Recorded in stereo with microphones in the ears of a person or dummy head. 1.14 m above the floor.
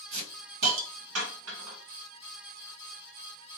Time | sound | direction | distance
0.1 | a hiss | 75° right (ahead or behind) | 1.8 m